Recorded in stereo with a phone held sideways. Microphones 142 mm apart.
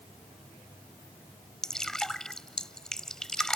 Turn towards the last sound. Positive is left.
turn(degrees=5)  # may be behind; listen again after turning